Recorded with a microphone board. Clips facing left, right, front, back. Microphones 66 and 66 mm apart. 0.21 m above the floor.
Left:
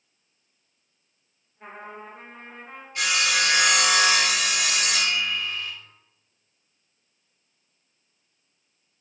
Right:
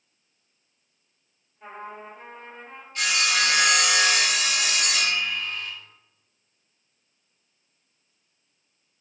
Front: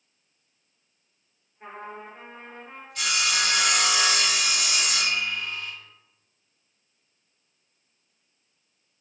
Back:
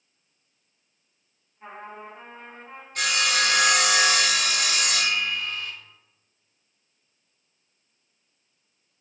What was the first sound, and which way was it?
A trumpet, 45° left.